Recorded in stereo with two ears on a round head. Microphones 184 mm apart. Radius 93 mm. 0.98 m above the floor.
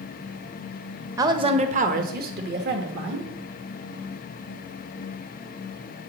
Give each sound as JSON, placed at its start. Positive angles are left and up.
{"t": 1.2, "sound": "a woman speaking", "side_deg": -15, "distance_m": 0.6}